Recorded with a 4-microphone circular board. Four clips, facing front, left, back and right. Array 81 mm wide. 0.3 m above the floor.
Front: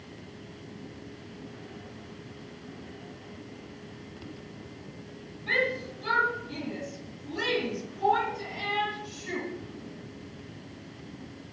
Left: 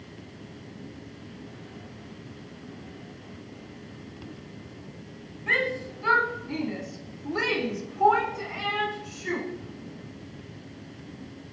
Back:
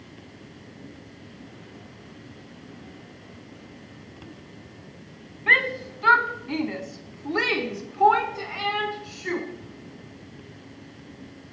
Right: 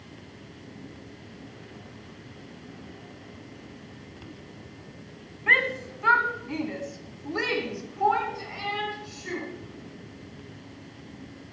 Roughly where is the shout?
Behind right.